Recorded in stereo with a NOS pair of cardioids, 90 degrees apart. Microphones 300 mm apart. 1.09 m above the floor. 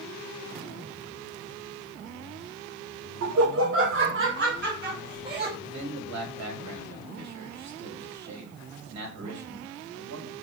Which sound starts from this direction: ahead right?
Laughter, at 3.2 s.